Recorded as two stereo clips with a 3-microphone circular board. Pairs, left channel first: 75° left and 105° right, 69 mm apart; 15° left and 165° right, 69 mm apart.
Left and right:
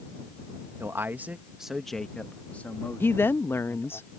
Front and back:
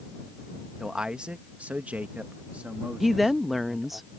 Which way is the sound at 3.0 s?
105° left.